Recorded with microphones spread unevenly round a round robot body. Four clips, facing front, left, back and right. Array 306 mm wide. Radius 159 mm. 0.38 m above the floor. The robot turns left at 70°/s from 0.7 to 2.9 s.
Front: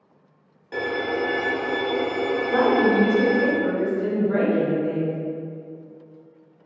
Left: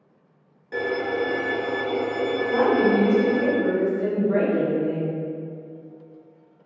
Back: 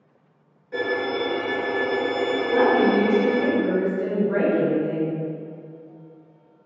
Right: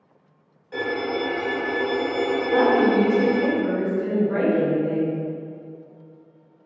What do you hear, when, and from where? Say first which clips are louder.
0.7 s a violin: left 1 dB, back 1 dB; 40° left, 0.6 m; by 3.5 s 115° right, 0.6 m
2.5 s a woman speaking: right 1 dB, back 1 dB; 80° left, 1.6 m; by 5.2 s 55° left, 1.6 m